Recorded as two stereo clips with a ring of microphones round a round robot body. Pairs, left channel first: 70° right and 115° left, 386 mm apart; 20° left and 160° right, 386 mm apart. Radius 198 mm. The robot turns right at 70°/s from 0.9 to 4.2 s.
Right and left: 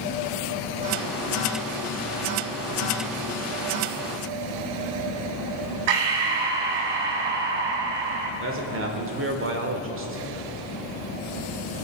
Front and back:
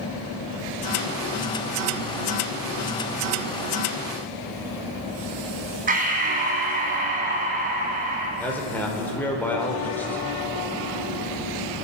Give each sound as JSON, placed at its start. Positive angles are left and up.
{"t": 5.9, "sound": "breathing", "azimuth_deg": 135, "distance_m": 1.8}
{"t": 8.4, "sound": "a man speaking", "azimuth_deg": 105, "distance_m": 1.6}